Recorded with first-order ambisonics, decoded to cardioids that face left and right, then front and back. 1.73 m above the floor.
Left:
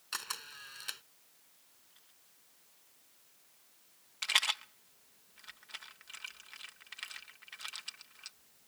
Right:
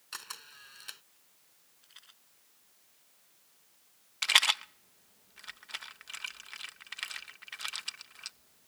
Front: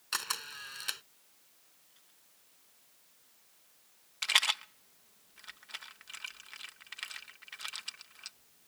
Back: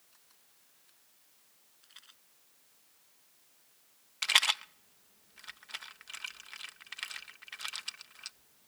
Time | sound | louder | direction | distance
0.1 | a camera shutter | left 4 dB, front 36 dB | 10° left | ?
1.8 | a rattle | right 13 dB, back 15 dB | 140° right | ?
4.2 | a rattle | right 6 dB, back 1 dB | 115° right | ?